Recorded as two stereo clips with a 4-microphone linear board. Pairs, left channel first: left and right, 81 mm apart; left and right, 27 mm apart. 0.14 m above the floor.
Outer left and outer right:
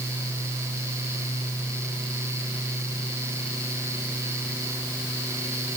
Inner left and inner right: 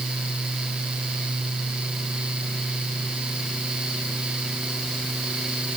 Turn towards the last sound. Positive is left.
No sound to turn to.